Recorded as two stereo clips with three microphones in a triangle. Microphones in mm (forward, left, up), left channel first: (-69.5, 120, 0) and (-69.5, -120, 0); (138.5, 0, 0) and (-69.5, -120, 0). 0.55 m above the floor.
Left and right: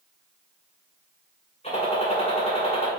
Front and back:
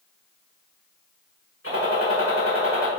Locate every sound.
1.6 s a gunshot: 30° left, 2 m